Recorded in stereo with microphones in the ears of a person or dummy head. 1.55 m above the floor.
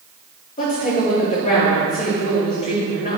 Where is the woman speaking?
40° left (ahead or behind), 3 m.